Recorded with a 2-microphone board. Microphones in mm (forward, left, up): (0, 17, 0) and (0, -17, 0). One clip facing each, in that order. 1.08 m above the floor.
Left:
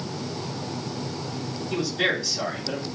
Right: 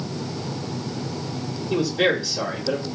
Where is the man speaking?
15° right (ahead or behind), 1.4 m.